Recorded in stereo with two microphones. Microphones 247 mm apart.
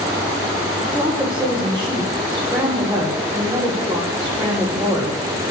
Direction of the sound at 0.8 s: 20° right (ahead or behind).